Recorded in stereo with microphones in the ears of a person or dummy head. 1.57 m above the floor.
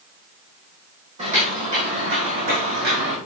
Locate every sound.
1.2 s footsteps: 35° right (ahead or behind), 4 m; by 3.2 s 55° right (ahead or behind), 4.5 m